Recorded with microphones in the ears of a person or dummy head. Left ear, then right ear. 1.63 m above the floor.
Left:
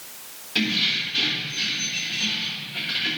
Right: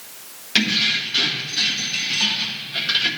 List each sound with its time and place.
0.6 s keys jangling: 70° right (ahead or behind), 2.0 m; by 3.1 s 45° right (ahead or behind), 1.9 m